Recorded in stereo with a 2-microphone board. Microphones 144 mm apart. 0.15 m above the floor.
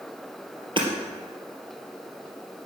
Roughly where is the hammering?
Right.